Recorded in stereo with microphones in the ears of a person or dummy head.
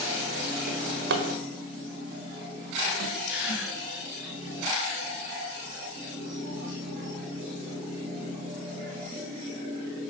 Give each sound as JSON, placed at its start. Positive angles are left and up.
{"t": 0.7, "sound": "a drawer", "side_deg": -65, "distance_m": 1.4}
{"t": 3.3, "sound": "a gasp", "side_deg": 75, "distance_m": 4.5}